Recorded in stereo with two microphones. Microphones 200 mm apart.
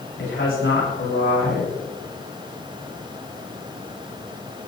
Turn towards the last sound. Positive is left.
turn(degrees=85)